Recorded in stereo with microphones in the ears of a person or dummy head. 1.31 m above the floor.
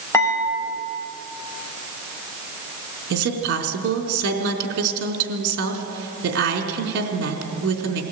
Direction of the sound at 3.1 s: 65° right (ahead or behind).